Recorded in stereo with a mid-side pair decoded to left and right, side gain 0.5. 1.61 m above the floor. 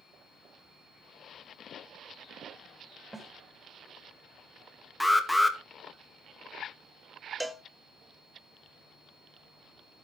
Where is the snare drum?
15° right, 7 m.